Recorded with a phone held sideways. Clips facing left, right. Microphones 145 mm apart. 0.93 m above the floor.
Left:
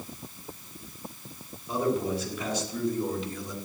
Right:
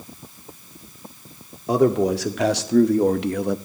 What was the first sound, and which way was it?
A man speaking, 85° right.